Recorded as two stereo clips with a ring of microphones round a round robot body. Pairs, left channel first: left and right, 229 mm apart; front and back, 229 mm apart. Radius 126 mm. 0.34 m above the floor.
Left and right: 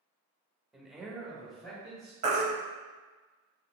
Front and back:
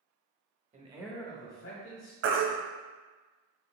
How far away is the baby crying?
About 0.8 m.